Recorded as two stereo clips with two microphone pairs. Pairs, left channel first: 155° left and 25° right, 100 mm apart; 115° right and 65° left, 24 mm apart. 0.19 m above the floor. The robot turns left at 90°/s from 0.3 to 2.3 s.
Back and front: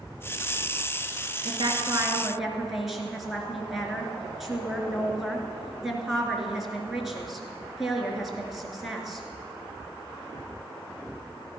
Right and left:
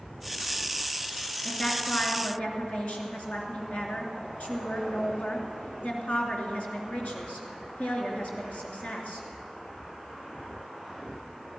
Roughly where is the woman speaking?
Ahead right.